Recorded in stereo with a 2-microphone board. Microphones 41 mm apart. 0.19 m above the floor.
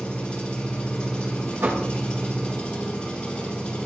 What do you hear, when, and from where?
0.0 s an engine running: 20° left (ahead or behind), 4.5 m
1.6 s knocking: 75° right (ahead or behind), 6 m